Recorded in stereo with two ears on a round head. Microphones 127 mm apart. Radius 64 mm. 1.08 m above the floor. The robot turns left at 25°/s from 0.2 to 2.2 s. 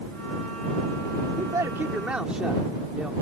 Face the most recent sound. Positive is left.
turn(degrees=-10)  # may be behind; listen again after turning